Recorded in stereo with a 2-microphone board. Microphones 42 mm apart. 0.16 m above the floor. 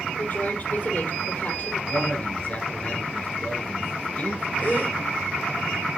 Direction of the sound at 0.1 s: 45° left (ahead or behind).